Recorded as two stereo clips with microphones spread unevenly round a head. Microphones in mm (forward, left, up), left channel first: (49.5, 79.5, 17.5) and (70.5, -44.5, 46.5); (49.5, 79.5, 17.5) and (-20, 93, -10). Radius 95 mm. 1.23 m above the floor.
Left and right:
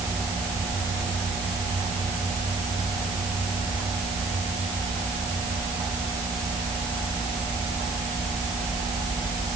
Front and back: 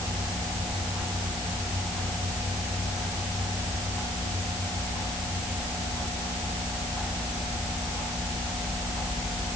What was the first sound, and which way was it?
Only background noise.